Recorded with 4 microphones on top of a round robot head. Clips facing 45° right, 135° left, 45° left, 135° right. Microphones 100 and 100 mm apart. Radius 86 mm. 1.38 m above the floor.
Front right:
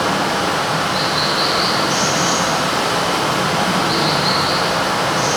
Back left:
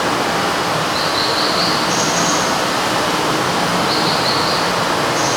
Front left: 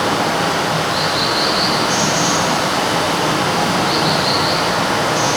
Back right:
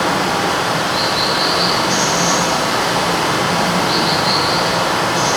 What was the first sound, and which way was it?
Running water, 75° left.